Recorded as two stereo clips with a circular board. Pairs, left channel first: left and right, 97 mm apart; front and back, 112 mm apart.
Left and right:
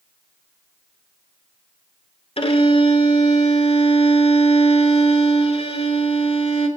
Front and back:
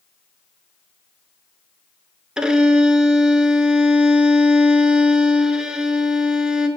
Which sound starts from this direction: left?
A violin, at 2.4 s.